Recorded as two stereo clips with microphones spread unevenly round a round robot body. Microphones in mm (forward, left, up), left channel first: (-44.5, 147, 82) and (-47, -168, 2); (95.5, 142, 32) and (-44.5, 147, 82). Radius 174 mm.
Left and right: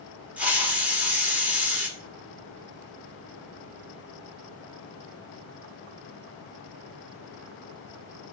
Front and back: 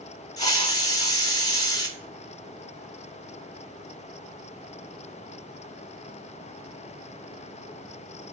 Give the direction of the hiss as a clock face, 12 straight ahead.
1 o'clock.